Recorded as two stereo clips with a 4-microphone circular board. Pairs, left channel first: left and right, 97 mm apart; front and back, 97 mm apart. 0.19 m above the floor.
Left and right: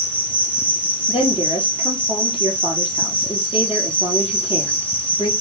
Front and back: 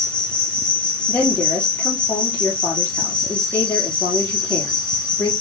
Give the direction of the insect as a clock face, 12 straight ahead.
9 o'clock.